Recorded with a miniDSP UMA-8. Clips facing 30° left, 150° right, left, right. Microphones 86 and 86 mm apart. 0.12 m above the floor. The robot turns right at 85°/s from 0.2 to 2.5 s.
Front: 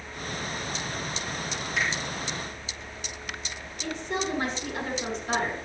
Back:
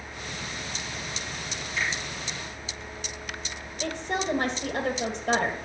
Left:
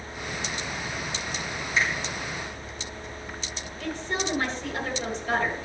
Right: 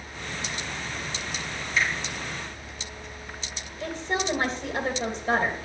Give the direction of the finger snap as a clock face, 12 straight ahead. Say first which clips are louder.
Front 1 dB, even; 11 o'clock.